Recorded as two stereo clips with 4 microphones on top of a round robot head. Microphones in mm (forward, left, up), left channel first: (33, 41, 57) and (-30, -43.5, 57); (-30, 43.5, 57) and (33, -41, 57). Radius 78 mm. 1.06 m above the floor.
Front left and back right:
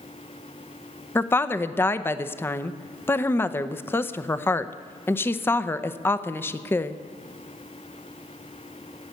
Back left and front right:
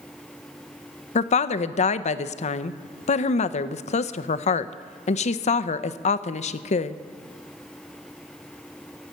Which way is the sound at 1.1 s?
125° left.